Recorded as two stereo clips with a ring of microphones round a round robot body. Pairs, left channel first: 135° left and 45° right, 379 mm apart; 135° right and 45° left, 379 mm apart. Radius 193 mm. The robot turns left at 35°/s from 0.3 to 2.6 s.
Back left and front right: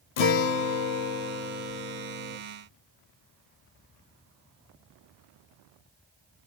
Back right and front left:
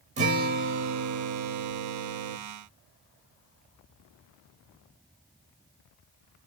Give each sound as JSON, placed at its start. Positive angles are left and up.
{"t": 0.2, "sound": "a guitar", "azimuth_deg": 115, "distance_m": 0.6}